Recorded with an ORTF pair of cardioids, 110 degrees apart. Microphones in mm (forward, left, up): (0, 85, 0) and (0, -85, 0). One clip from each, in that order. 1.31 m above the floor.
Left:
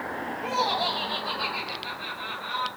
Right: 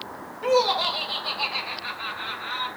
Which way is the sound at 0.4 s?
30° right.